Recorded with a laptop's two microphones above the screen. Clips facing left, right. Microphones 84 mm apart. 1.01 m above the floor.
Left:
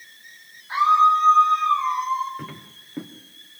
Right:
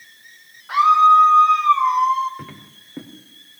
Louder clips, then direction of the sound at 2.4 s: Left 1 dB; centre (ahead or behind).